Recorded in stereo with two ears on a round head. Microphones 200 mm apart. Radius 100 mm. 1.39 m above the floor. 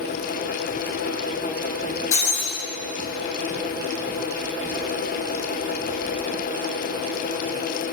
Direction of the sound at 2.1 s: 65° left (ahead or behind).